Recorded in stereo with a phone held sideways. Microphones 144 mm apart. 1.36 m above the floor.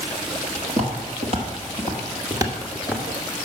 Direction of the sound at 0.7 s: 50° right (ahead or behind).